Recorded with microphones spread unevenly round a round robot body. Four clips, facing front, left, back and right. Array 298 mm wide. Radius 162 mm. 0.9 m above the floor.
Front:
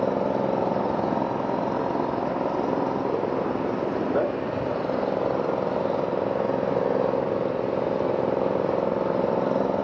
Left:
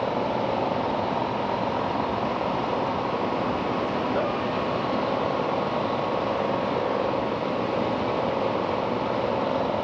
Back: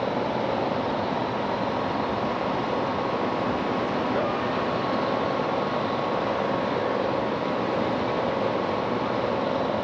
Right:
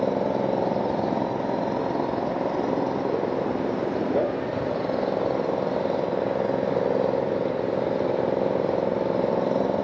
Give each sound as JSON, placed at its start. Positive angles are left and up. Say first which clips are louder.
{"t": 0.0, "sound": "an engine running", "louder": "right 2 dB, front 2 dB", "azimuth_deg": -50}